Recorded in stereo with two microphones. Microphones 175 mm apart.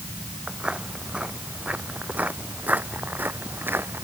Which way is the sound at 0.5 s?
5° right (ahead or behind).